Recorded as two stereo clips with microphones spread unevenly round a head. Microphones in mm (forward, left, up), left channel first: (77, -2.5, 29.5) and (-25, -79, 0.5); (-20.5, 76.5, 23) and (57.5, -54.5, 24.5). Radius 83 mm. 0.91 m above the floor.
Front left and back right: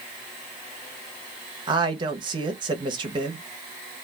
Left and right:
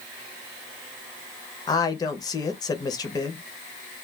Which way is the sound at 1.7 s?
175° right.